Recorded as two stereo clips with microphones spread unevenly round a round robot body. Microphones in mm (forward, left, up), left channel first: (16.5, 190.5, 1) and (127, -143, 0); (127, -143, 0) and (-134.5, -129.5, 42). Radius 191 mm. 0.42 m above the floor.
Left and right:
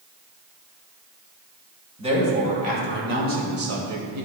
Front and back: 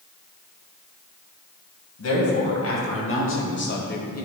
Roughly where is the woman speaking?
Ahead.